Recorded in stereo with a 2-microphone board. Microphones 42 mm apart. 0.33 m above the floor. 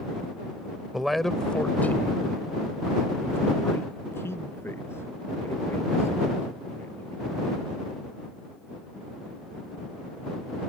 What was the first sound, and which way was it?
A man speaking, 10° right (ahead or behind).